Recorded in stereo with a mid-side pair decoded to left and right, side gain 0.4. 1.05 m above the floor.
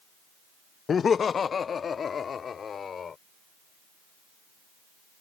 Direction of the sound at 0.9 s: 50° left.